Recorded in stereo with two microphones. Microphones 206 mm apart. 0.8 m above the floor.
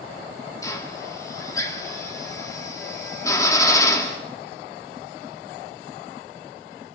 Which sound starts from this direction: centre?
A drill, at 0.6 s.